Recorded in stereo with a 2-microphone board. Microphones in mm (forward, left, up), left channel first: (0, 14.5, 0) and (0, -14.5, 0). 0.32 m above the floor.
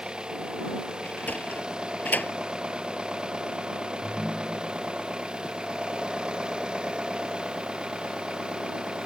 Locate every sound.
0.0 s an engine running: 30° right (ahead or behind)
1.0 s a sliding door: 75° left (ahead or behind)
4.0 s a ringtone: 25° right (ahead or behind)